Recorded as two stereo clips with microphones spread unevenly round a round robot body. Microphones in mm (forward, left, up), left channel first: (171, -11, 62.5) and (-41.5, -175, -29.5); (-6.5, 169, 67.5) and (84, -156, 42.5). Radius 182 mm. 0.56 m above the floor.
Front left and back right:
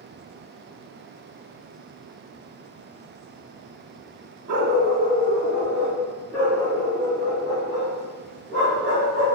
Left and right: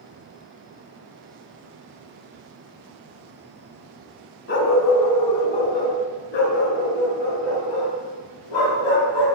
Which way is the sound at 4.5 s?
160° left.